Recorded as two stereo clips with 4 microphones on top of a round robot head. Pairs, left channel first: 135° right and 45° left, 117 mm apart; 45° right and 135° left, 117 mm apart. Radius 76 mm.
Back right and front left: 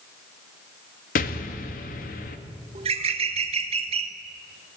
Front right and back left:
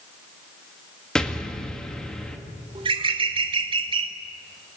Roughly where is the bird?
Left.